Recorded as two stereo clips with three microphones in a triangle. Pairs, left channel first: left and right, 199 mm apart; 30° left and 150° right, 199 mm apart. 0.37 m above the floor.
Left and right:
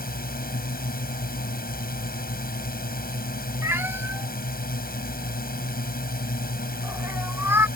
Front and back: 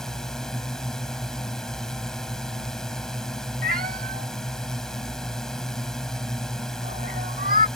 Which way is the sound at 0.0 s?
115° left.